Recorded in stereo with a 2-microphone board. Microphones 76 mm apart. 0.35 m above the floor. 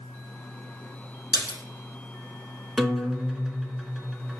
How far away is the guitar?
About 0.5 m.